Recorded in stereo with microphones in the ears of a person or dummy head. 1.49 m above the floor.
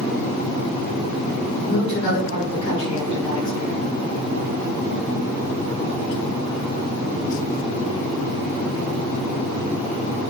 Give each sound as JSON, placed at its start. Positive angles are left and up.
{"t": 1.6, "sound": "a woman speaking", "side_deg": 30, "distance_m": 1.4}